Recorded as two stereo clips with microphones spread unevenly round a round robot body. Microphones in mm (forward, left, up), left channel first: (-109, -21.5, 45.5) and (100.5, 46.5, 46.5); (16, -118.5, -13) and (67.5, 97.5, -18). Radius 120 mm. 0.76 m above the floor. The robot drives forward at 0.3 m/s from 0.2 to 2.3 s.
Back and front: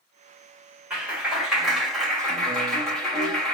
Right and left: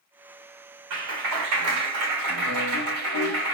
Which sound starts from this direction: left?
A clap, at 0.9 s.